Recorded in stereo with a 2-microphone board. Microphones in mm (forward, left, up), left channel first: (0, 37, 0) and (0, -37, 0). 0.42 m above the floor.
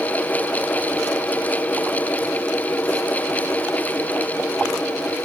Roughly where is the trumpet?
I don't hear a trumpet.